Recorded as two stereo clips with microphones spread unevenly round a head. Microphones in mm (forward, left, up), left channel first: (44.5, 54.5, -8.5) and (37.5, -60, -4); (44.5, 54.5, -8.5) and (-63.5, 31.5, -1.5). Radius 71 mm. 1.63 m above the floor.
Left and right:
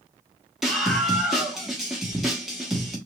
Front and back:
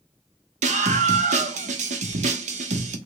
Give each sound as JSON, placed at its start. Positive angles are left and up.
{"t": 0.6, "sound": "a scream", "azimuth_deg": 180, "distance_m": 1.0}